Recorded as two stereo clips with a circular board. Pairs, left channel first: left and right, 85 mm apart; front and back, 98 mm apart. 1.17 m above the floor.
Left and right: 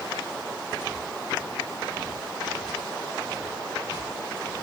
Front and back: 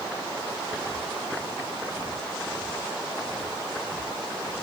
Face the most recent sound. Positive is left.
No sound to turn to.